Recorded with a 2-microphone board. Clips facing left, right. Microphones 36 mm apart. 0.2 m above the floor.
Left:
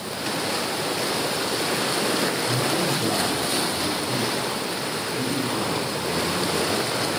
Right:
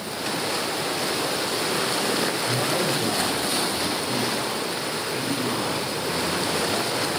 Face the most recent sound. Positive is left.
turn(degrees=0)  # may be behind; listen again after turning